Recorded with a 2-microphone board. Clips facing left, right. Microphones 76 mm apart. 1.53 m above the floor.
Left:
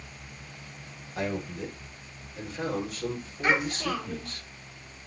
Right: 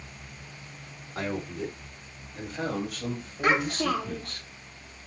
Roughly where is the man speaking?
Right.